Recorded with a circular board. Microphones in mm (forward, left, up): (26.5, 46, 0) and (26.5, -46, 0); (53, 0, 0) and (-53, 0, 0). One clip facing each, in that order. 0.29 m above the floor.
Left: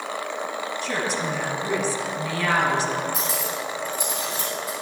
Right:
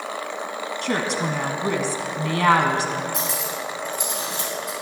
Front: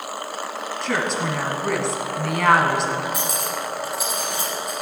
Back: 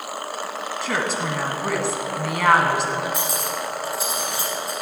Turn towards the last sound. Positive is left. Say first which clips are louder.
# even, even
turn(degrees=-115)